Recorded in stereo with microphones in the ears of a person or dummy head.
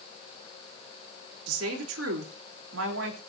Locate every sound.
1.5 s a woman speaking: 80° right, 3.5 m